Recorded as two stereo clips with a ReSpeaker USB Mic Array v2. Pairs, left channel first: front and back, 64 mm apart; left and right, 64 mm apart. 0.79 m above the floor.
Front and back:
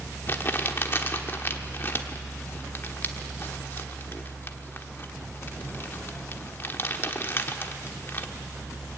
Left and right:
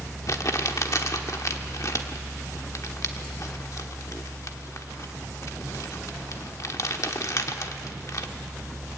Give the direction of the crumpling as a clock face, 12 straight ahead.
10 o'clock.